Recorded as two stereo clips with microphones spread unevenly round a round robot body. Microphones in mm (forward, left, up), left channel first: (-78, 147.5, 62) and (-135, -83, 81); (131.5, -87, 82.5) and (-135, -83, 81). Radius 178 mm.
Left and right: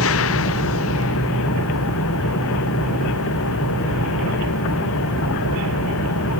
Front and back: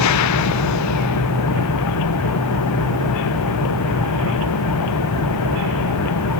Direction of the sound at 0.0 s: 35° left.